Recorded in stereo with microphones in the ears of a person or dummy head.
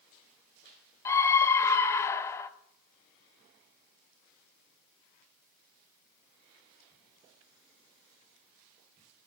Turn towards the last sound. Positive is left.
turn(degrees=15)  # may be behind; listen again after turning